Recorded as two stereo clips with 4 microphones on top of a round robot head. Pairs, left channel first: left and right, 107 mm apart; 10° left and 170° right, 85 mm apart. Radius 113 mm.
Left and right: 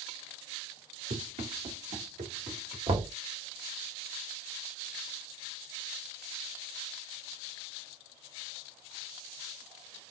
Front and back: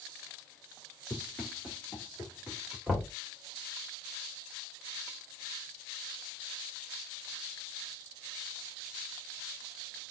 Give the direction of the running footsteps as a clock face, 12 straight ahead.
2 o'clock.